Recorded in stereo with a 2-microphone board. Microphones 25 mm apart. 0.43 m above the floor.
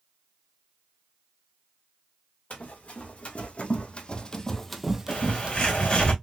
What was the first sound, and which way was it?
Running footsteps, 75° left (ahead or behind).